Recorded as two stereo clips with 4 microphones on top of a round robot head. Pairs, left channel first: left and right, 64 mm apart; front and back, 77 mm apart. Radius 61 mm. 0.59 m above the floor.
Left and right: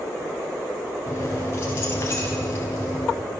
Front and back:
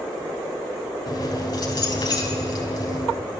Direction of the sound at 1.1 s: 30° left.